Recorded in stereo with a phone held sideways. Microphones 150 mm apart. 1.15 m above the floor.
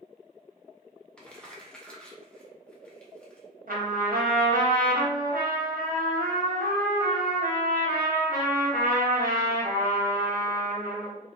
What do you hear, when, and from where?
1.2 s crumpling: 5° left (ahead or behind), 0.6 m
3.7 s a trumpet: 65° right (ahead or behind), 0.7 m